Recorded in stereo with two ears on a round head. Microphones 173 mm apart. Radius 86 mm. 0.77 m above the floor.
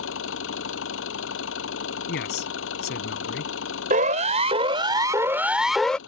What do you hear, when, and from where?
0.0 s an engine running: 75° left (ahead or behind)
2.1 s a man speaking: 60° left (ahead or behind)
3.9 s a siren: 45° right (ahead or behind); by 6.0 s 5° left (ahead or behind)